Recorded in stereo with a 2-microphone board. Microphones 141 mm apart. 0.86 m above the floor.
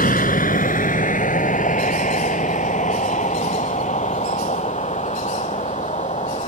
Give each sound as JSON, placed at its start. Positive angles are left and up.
{"t": 0.0, "sound": "a vehicle", "side_deg": 80}